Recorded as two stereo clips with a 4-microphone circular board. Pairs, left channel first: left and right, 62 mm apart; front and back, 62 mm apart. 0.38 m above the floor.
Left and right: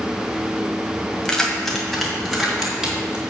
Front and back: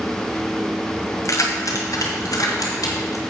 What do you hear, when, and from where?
1.2 s keys jangling: 15° left, 1.5 m; by 3.2 s 15° right, 3 m